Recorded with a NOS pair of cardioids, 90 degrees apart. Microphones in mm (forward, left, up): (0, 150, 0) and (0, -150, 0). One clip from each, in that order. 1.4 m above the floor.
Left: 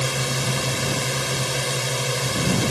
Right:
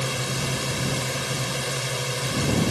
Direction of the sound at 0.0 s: 25° left.